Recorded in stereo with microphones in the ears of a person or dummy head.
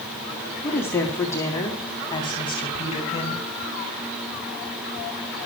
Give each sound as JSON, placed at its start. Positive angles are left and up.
{"t": 0.6, "sound": "a woman speaking", "side_deg": 10, "distance_m": 3.5}